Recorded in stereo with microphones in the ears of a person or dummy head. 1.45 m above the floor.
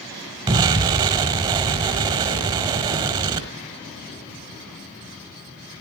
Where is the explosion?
15° right (ahead or behind), 1.3 m.